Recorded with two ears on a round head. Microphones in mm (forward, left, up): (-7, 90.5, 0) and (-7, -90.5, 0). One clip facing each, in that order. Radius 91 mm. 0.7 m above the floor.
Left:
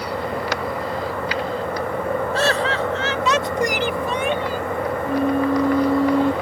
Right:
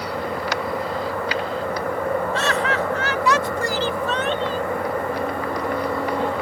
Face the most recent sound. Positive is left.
turn(degrees=60)  # may be behind; listen again after turning